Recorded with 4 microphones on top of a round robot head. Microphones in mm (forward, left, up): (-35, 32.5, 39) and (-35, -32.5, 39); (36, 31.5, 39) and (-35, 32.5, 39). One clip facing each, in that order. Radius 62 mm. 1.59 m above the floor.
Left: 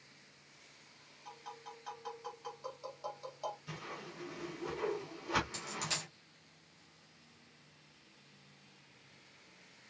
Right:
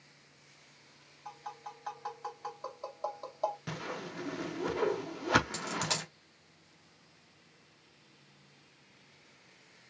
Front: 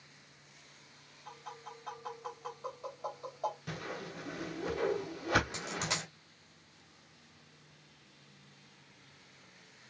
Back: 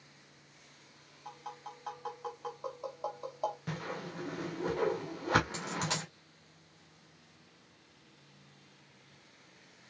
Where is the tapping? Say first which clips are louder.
Right 5 dB, back 2 dB; 135° right, 4 m.